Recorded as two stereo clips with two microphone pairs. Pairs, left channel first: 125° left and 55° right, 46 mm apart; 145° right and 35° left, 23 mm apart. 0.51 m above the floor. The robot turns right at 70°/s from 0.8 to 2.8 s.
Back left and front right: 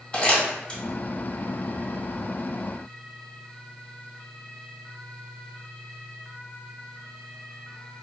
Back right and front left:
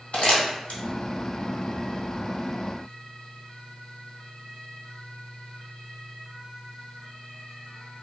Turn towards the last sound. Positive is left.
turn(degrees=-25)